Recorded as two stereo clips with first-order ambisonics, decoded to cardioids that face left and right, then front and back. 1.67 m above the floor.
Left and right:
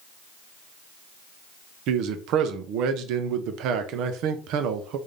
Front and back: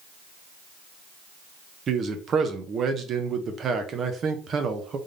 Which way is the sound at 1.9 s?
120° right.